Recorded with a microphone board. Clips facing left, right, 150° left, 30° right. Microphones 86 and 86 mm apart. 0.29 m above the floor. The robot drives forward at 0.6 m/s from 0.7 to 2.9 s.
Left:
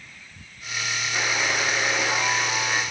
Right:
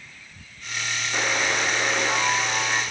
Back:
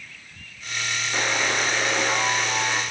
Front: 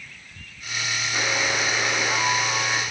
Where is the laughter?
No laughter in this recording.